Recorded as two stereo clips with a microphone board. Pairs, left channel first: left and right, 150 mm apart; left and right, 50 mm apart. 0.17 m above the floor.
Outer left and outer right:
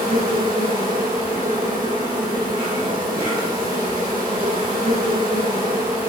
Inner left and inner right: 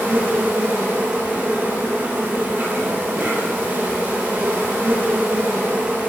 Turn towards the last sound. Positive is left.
turn(degrees=-25)  # may be behind; listen again after turning